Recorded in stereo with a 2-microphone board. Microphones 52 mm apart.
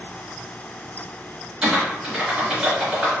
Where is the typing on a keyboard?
10° right (ahead or behind), 1.9 m.